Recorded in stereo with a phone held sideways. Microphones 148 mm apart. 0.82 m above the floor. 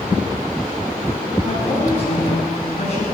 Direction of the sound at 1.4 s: 45° left (ahead or behind).